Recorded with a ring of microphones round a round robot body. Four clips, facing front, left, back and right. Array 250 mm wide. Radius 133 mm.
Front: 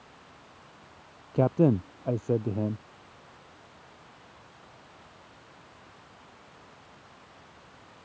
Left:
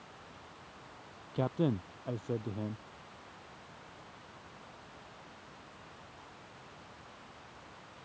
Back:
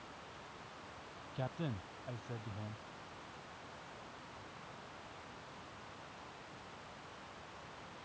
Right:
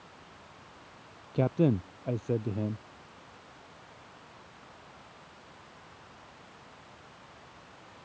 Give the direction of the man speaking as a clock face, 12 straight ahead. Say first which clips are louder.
Right 6 dB, front 20 dB; 1 o'clock.